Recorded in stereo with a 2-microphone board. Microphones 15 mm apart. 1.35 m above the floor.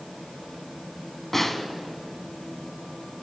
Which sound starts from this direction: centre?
A snare drum, at 1.3 s.